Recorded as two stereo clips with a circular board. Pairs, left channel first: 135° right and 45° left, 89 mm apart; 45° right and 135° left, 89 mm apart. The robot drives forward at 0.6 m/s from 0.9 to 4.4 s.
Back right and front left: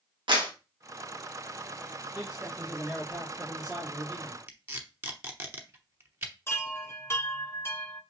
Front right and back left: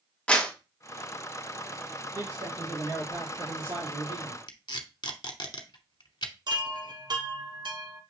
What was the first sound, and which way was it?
A clap, 30° left.